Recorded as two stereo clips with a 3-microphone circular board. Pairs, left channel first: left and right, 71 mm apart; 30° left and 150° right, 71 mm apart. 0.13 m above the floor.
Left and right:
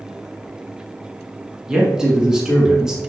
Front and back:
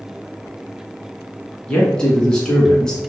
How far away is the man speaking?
About 1.1 m.